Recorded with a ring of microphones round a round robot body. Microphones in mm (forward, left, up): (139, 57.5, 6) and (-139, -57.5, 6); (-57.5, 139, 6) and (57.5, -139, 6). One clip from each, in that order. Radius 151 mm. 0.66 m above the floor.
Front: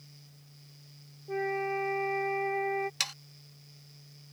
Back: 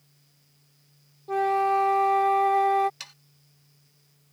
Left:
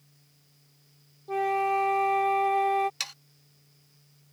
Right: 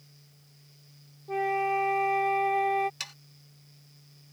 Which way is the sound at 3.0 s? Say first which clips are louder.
Front 10 dB, left 4 dB; 50° left.